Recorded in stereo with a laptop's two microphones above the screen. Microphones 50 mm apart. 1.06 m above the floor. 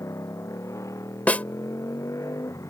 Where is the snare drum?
30° left (ahead or behind).